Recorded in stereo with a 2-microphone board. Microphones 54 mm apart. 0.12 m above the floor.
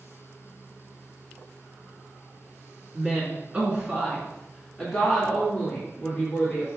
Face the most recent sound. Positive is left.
turn(degrees=20)  # may be behind; listen again after turning